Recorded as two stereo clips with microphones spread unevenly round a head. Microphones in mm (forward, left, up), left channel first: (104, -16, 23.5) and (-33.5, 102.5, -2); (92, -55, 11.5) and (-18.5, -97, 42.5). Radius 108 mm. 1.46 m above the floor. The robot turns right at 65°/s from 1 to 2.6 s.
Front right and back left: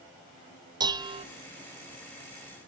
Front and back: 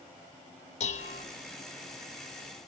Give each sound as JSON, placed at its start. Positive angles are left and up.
{"t": 0.8, "sound": "dishes clattering", "azimuth_deg": 70, "distance_m": 0.9}